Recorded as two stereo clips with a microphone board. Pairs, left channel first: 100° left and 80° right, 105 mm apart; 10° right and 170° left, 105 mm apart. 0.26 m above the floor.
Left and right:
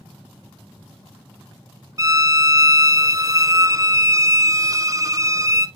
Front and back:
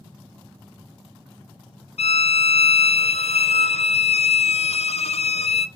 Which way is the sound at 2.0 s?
20° right.